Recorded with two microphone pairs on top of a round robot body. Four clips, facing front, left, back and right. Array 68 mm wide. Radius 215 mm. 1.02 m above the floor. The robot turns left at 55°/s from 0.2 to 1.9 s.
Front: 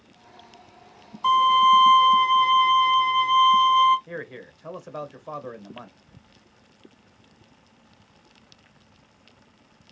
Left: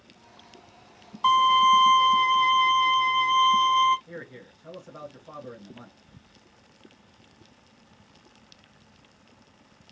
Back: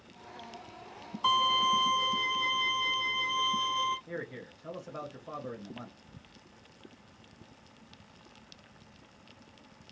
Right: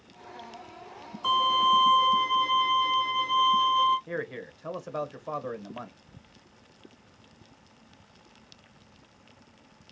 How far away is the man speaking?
About 0.9 m.